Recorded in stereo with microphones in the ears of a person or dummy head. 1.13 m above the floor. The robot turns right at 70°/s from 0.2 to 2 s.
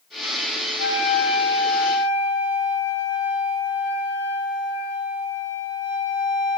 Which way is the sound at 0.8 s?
55° left.